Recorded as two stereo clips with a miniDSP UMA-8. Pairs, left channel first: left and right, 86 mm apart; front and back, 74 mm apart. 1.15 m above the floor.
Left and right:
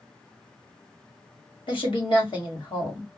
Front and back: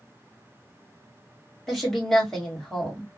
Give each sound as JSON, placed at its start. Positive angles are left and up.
{"t": 1.7, "sound": "a woman speaking", "azimuth_deg": 85, "distance_m": 1.5}